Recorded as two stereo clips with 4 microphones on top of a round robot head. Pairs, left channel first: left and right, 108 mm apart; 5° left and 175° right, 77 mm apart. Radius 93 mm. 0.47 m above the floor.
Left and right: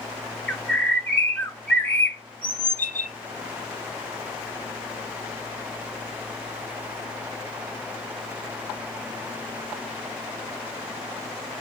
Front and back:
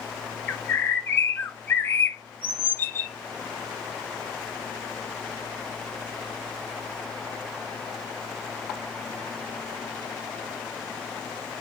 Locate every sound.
0.5 s a bird: 30° left, 0.8 m